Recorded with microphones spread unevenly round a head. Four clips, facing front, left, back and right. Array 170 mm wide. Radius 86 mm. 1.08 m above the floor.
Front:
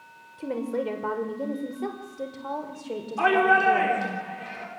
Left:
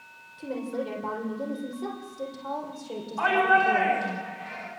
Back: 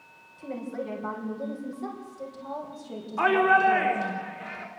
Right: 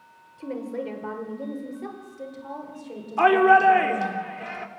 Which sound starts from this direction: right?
A shout, at 3.2 s.